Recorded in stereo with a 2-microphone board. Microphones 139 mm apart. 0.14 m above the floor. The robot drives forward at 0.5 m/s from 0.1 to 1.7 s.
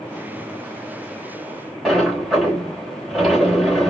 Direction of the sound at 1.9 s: 5° right (ahead or behind).